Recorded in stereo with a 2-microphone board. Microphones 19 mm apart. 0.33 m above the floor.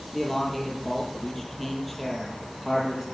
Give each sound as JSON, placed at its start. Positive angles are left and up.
{"t": 0.1, "sound": "a man speaking", "side_deg": 10, "distance_m": 7.0}